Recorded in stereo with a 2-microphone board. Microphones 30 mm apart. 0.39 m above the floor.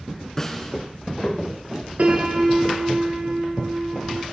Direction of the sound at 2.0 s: 60° right (ahead or behind).